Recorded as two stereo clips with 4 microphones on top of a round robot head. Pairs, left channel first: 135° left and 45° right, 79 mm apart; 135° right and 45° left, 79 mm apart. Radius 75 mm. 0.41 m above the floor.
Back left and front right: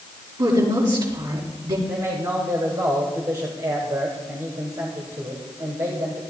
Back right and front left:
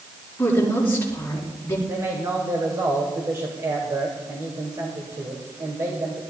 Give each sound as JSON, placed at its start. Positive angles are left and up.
{"t": 0.4, "sound": "a woman speaking", "azimuth_deg": -70, "distance_m": 7.0}
{"t": 1.9, "sound": "a man speaking", "azimuth_deg": 0, "distance_m": 2.5}